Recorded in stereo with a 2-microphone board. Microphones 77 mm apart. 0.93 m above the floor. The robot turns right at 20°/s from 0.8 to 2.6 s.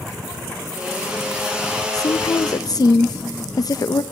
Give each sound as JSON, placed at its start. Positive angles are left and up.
{"t": 1.9, "sound": "a woman speaking", "side_deg": 50, "distance_m": 0.6}